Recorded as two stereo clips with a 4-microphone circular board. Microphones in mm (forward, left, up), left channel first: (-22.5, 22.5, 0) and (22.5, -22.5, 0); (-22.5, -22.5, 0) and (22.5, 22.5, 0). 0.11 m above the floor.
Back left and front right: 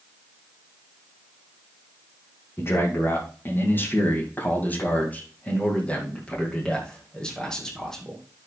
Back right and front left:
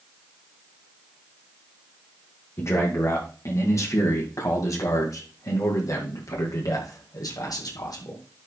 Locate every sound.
2.6 s a man speaking: straight behind, 6 m; by 8.2 s 145° right, 6 m